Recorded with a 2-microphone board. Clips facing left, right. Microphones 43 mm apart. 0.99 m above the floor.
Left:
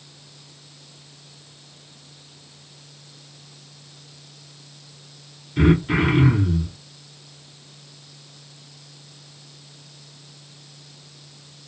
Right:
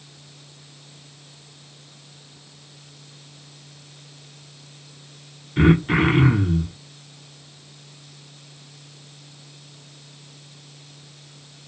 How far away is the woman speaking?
I don't hear a woman speaking.